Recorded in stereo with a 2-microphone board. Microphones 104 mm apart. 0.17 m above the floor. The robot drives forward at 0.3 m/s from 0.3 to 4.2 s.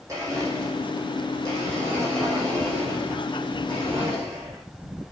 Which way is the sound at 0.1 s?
30° right (ahead or behind).